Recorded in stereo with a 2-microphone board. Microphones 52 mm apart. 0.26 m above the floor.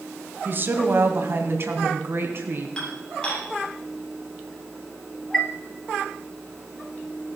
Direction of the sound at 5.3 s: 10° left (ahead or behind).